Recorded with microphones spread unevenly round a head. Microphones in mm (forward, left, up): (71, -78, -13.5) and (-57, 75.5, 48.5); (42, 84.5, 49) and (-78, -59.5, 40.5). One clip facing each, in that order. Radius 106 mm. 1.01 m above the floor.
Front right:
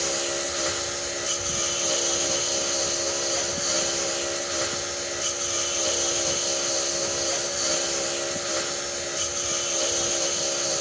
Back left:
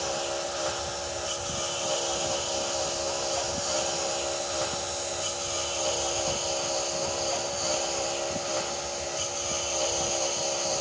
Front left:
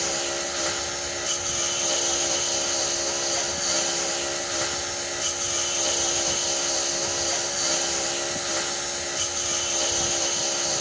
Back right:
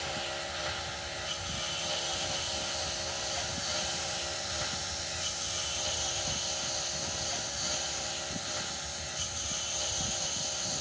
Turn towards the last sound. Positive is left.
turn(degrees=15)